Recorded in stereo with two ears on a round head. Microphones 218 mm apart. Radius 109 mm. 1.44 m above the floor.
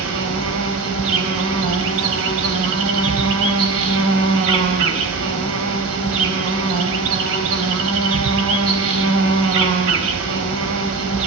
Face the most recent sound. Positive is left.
turn(degrees=-60)  # may be behind; listen again after turning